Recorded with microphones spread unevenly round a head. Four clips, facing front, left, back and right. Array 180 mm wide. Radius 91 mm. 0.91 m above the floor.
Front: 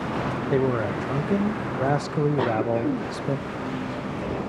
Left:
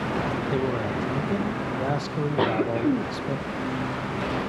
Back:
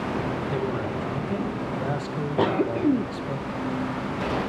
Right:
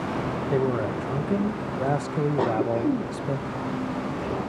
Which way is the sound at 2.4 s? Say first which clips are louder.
Left 2 dB, back 1 dB; 170° right.